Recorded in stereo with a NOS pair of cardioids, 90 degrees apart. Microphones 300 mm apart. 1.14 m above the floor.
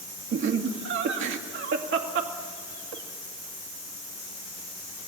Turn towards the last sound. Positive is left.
turn(degrees=-40)